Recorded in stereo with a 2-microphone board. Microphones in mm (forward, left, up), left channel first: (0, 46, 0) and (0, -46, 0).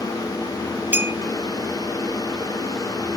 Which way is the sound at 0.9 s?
20° right (ahead or behind).